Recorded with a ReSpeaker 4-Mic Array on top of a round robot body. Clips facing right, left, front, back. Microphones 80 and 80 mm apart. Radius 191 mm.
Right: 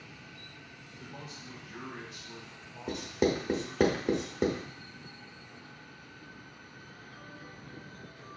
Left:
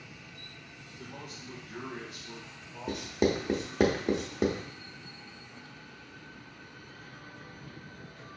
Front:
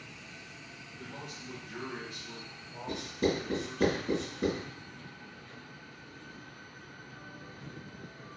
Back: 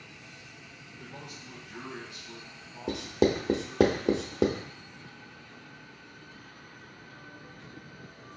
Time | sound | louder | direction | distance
1.0 | a man speaking | left 1 dB, front 1 dB | 45° left | 1.7 m
2.9 | writing | left 1 dB, back 5 dB | straight behind | 0.8 m